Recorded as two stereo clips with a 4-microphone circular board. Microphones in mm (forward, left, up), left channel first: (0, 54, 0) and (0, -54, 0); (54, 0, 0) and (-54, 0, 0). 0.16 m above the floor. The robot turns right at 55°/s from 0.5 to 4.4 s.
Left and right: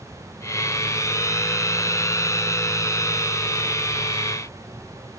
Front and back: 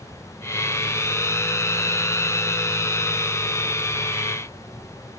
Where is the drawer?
I don't hear a drawer.